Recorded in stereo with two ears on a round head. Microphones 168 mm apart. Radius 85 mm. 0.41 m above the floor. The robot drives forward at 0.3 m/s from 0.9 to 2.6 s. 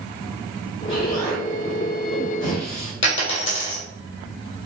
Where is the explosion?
25° left (ahead or behind), 1.8 m; by 2.9 s 30° left (ahead or behind), 1.6 m.